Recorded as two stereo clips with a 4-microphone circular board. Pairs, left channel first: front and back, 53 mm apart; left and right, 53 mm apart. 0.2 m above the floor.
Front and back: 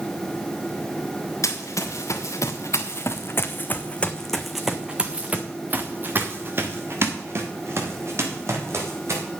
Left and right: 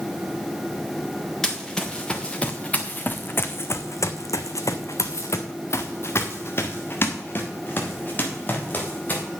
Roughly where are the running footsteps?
Ahead.